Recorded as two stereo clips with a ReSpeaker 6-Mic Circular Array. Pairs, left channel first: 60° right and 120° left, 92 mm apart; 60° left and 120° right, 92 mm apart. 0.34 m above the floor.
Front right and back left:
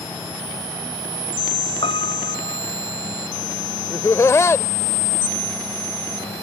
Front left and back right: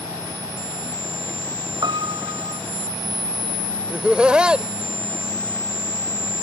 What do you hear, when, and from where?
1.8 s a piano: 80° right
3.9 s laughter: 55° right